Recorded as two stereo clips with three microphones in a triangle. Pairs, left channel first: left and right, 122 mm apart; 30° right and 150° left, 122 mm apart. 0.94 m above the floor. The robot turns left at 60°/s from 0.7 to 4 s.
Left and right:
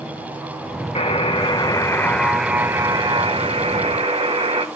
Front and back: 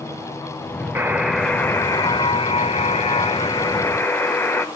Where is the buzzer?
85° left, 0.9 m; by 4.7 s 100° right, 0.9 m.